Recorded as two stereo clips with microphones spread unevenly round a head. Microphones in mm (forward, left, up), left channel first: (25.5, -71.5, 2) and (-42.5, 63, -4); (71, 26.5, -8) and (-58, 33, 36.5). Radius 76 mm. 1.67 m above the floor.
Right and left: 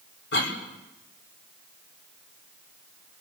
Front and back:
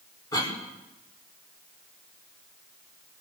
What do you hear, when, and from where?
0.3 s a cough: 75° right, 5.5 m